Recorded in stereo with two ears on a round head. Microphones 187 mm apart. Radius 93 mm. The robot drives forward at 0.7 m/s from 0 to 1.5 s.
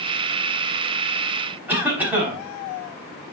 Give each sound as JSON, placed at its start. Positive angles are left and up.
{"t": 1.7, "sound": "a cough", "side_deg": -10, "distance_m": 5.0}